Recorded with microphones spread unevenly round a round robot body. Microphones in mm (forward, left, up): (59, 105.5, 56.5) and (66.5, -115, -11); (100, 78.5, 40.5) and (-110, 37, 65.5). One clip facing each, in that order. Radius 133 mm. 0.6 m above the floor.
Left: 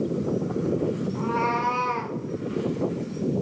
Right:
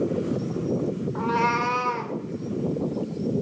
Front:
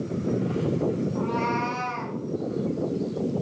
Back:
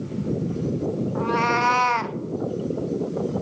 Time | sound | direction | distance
1.1 | a cat meowing | 125° right | 0.8 m